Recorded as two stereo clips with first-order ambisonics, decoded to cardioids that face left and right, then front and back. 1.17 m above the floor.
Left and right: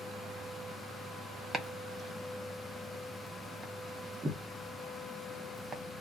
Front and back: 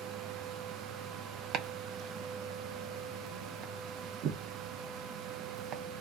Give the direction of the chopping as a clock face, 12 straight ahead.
5 o'clock.